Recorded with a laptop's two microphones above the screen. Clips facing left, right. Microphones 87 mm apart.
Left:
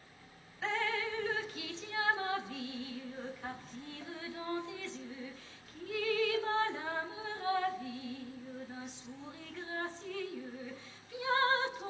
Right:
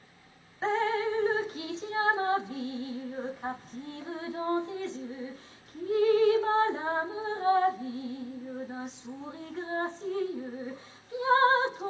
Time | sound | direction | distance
0.6 | dripping | 35° right (ahead or behind) | 0.8 m